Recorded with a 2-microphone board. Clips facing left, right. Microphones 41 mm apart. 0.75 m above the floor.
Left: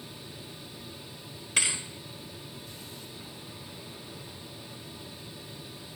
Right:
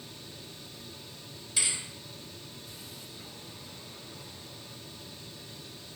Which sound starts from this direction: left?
A thud, at 1.6 s.